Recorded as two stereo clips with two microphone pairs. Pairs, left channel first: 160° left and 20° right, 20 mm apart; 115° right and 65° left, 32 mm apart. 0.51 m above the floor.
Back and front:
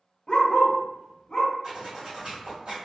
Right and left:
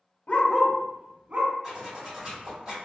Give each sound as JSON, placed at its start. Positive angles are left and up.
{"t": 0.3, "sound": "a dog barking", "azimuth_deg": -155, "distance_m": 0.6}
{"t": 1.6, "sound": "a zipper", "azimuth_deg": 5, "distance_m": 1.7}